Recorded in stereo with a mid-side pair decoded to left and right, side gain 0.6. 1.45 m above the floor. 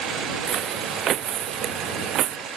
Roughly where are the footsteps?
Ahead right.